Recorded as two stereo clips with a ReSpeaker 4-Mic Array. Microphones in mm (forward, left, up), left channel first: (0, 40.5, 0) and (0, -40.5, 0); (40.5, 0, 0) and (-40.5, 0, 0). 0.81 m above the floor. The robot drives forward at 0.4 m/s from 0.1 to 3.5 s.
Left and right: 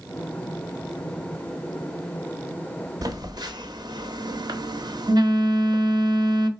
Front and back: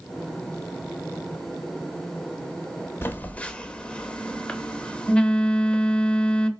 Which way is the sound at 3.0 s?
55° right.